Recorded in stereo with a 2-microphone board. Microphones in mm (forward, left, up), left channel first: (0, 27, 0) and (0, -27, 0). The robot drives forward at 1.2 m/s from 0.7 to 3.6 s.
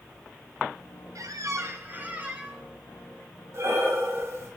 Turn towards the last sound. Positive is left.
turn(degrees=-50)  # may be behind; listen again after turning